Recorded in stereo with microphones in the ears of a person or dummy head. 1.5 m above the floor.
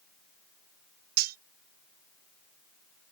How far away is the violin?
I don't hear a violin.